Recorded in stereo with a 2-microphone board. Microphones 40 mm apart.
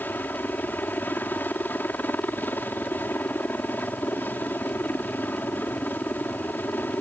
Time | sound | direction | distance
0.0 | a helicopter | 55° left (ahead or behind) | ?